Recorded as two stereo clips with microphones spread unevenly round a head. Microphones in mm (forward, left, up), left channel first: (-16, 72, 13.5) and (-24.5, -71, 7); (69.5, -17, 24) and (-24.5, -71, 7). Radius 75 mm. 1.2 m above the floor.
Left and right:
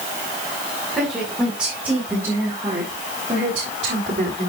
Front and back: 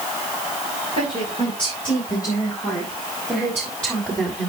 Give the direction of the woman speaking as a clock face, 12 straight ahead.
12 o'clock.